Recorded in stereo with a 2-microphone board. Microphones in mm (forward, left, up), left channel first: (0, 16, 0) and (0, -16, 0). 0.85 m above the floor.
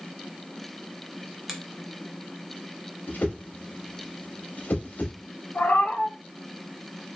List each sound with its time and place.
1.5 s a finger snap: 10° right (ahead or behind), 0.6 m
3.1 s a whoosh: 60° left (ahead or behind), 0.7 m
5.5 s a cat meowing: 65° left (ahead or behind), 0.7 m